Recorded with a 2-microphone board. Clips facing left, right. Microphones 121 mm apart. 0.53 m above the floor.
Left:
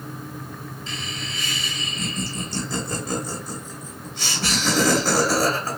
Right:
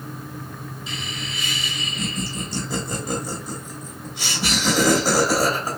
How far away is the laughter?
About 1.3 m.